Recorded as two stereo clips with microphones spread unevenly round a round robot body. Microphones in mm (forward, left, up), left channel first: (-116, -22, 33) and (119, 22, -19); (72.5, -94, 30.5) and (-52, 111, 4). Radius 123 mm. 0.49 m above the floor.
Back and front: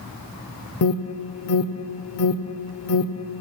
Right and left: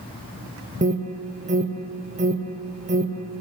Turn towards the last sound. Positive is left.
turn(degrees=170)